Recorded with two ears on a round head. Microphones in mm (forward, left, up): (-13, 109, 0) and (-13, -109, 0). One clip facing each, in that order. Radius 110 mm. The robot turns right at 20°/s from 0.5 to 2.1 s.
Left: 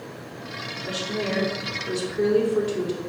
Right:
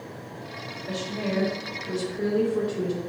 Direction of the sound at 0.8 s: 75° left (ahead or behind).